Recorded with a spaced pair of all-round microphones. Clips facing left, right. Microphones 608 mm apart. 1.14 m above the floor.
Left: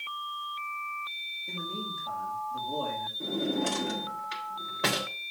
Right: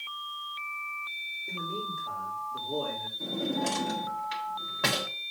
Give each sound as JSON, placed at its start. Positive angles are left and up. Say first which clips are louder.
{"t": 1.5, "sound": "a man speaking", "louder": "right 1 dB", "side_deg": 30, "distance_m": 3.0}
{"t": 3.2, "sound": "a drawer", "louder": "left 2 dB", "side_deg": -20, "distance_m": 1.7}